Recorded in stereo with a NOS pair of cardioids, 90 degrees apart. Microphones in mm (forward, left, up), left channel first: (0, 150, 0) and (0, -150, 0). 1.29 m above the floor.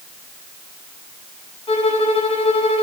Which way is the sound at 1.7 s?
20° left.